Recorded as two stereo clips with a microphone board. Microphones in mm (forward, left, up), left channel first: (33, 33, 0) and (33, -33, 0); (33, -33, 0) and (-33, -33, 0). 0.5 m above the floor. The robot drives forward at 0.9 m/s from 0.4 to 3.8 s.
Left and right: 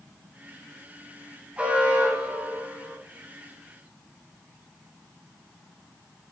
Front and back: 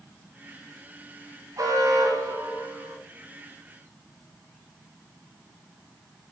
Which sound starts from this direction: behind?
An alarm, at 1.6 s.